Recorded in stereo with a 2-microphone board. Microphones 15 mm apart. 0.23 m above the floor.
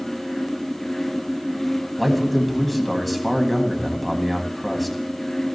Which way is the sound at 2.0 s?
Centre (ahead or behind).